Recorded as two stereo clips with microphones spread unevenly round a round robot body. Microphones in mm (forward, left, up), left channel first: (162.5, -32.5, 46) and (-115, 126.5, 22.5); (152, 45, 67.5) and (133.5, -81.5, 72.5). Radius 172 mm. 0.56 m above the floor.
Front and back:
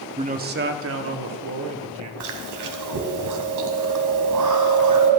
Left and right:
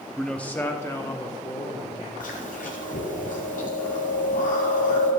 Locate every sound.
0.2 s a man speaking: 160° left, 0.8 m; by 2.1 s 135° left, 1.6 m
2.2 s chewing: 120° left, 1.5 m